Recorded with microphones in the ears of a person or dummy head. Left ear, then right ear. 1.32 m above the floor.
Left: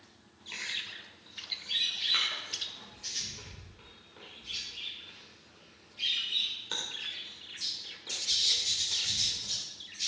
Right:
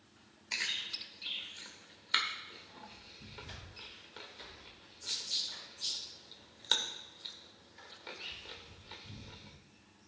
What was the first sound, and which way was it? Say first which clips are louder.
Chewing: right 1 dB; 40° right (ahead or behind).